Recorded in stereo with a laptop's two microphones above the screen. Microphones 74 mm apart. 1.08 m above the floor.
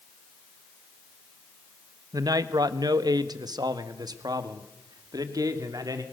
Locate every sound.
2.1 s a man speaking: 60° right (ahead or behind), 1.1 m; by 6.0 s 65° right (ahead or behind), 2.5 m